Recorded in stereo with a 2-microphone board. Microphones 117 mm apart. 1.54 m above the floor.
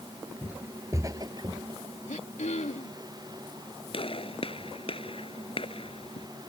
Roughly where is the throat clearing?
Left.